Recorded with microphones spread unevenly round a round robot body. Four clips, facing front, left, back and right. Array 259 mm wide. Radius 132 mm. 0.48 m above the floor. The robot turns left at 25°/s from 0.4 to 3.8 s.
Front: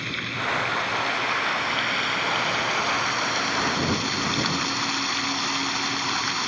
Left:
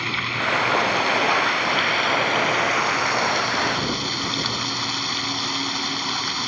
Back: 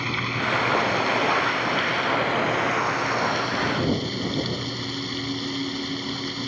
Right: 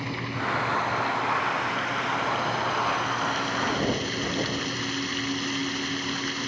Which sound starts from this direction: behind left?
Running water, at 0.0 s.